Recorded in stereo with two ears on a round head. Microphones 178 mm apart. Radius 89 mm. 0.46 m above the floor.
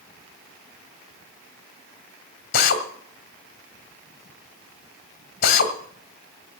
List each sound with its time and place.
2.5 s a drill: 50° left (ahead or behind), 1.7 m